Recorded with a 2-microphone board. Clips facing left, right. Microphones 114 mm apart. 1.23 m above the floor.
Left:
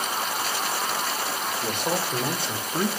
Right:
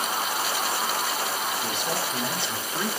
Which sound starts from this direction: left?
A man speaking, at 1.6 s.